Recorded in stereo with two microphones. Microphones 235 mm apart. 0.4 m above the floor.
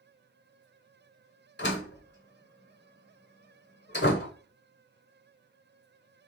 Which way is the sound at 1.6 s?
50° left (ahead or behind).